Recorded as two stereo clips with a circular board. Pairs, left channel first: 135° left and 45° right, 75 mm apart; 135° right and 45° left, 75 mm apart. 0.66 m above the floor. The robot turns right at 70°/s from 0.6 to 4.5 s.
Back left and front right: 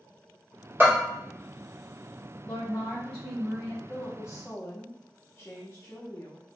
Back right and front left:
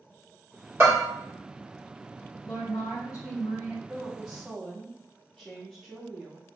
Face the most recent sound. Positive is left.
turn(degrees=155)